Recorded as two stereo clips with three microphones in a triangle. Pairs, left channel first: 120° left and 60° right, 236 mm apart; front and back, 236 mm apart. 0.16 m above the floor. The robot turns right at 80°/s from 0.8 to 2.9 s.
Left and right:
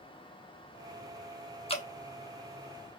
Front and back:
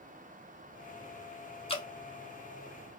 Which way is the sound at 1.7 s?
55° left.